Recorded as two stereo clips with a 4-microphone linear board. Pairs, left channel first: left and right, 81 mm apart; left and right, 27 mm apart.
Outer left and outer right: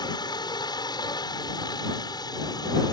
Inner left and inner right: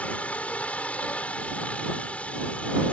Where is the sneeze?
I don't hear a sneeze.